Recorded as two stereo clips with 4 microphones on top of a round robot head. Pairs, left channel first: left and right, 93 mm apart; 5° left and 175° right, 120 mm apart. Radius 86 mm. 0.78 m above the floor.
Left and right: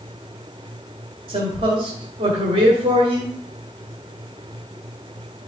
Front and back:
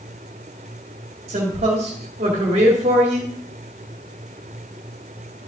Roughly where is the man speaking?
Behind right.